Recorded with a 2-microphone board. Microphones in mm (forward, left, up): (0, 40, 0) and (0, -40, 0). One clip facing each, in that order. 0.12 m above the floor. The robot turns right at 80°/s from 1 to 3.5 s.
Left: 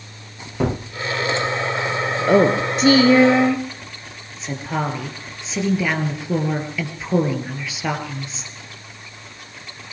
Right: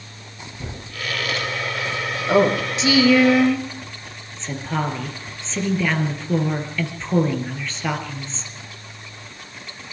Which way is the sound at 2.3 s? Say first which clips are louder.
Left 2 dB; 75° left.